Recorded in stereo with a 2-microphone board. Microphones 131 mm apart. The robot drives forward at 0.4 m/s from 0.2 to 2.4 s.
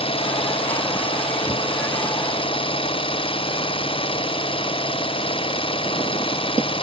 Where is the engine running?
45° left (ahead or behind).